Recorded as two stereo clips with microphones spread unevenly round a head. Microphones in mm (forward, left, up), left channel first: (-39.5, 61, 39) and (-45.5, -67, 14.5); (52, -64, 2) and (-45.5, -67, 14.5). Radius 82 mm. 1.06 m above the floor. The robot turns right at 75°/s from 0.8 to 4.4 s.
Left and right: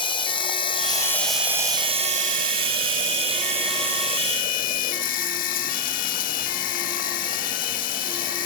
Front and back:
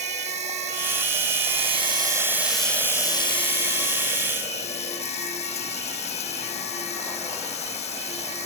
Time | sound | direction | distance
0.0 | running water | 140° left | ?